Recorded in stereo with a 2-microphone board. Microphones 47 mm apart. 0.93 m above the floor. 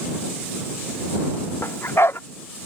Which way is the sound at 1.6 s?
60° left (ahead or behind).